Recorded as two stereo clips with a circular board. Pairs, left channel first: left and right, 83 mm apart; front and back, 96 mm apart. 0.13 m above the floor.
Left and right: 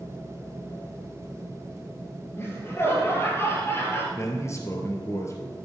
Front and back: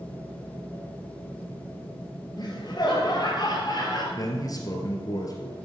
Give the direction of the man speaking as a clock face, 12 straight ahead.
11 o'clock.